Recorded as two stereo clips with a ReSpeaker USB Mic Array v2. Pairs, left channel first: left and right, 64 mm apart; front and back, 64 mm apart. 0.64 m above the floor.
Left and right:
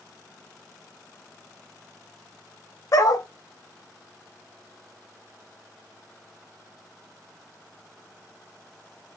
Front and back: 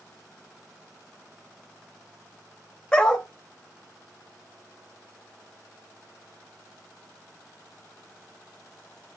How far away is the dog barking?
About 0.5 m.